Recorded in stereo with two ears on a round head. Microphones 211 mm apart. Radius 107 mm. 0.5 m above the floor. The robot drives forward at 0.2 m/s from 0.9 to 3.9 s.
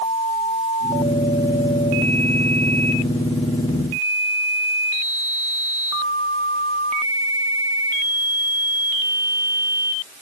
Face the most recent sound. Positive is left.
No sound to turn to.